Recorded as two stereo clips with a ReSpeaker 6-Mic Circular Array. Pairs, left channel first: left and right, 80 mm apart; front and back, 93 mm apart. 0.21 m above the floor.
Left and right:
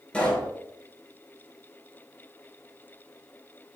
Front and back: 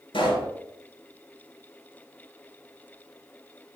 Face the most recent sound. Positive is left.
turn(degrees=15)